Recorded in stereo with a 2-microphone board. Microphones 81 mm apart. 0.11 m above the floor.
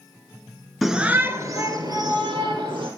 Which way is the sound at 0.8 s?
Centre (ahead or behind).